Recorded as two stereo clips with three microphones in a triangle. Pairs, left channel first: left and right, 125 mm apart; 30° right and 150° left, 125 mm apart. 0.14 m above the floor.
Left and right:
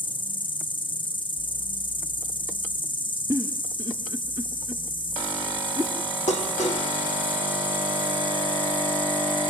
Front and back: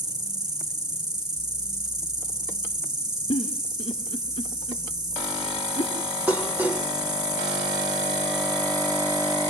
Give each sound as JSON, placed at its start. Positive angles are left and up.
{"t": 0.0, "sound": "an insect", "azimuth_deg": 110, "distance_m": 1.7}
{"t": 3.3, "sound": "a giggle", "azimuth_deg": -40, "distance_m": 1.8}
{"t": 6.3, "sound": "dishes clattering", "azimuth_deg": 75, "distance_m": 2.5}